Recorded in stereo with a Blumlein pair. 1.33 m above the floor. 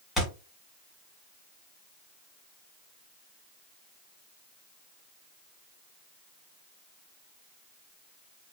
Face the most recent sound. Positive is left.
turn(degrees=10)